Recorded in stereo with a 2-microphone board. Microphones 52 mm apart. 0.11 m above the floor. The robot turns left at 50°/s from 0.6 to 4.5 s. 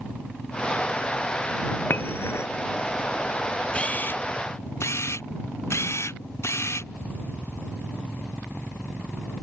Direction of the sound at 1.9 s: 40° left (ahead or behind).